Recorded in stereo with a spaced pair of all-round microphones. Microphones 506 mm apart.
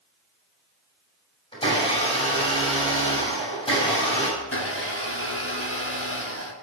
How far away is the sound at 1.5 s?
About 7.5 m.